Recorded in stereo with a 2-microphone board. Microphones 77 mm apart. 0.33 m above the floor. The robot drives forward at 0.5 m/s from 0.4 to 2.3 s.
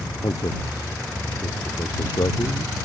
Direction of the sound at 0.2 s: 65° left (ahead or behind).